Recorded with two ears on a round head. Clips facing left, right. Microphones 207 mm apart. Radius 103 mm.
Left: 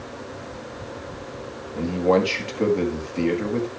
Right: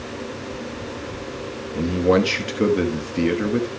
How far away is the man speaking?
About 1.2 m.